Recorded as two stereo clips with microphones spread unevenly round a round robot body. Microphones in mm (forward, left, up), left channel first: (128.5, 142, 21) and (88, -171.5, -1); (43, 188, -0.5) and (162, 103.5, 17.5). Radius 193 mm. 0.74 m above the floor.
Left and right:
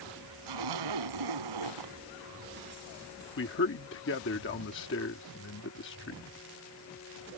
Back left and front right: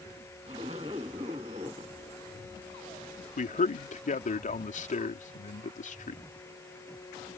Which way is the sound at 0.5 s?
110° right.